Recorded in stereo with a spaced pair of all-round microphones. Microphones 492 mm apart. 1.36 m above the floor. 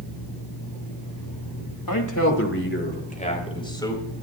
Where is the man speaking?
45° left (ahead or behind), 2.5 m; by 4.0 s 5° left (ahead or behind), 5 m.